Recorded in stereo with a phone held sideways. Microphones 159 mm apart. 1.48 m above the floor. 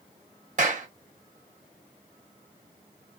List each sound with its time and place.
0.6 s a clap: 55° right (ahead or behind), 0.9 m